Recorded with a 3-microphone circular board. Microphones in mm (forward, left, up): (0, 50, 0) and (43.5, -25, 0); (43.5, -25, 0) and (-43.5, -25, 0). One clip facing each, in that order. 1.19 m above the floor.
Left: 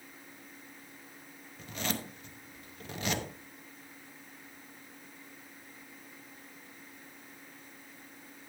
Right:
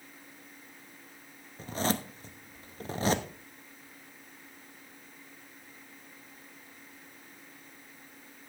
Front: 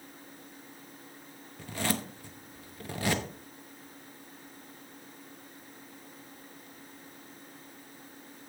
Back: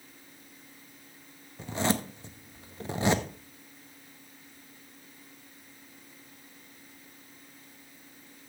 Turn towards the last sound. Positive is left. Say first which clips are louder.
# right 6 dB, back 4 dB
turn(degrees=-110)